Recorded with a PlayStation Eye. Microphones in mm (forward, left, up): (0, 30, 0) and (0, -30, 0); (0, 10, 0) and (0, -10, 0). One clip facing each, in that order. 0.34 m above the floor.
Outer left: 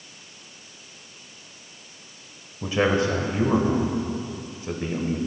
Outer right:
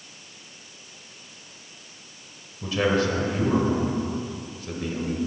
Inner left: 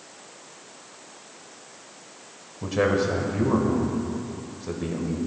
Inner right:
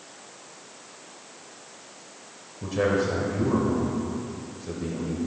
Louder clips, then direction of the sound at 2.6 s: Outer left 1 dB, inner left 1 dB; 25° left (ahead or behind).